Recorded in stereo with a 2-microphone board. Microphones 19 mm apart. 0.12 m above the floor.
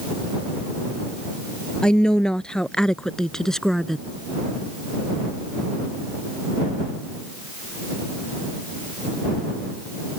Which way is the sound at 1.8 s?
45° left (ahead or behind).